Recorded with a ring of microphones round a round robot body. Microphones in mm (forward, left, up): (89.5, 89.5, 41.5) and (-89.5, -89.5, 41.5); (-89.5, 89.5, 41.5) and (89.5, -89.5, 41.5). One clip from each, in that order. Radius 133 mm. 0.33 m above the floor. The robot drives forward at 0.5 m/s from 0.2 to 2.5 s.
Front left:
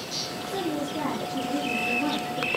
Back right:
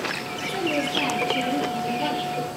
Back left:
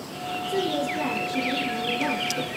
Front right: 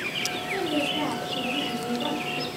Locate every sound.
0.5 s a woman speaking: 175° left, 7 m